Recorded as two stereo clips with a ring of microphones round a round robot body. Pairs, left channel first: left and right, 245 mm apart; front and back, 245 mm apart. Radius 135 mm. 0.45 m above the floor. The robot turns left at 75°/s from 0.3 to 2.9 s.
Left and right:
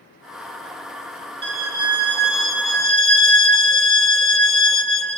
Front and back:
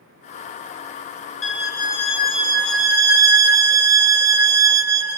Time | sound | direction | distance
1.4 | a violin | 40° right | 1.0 m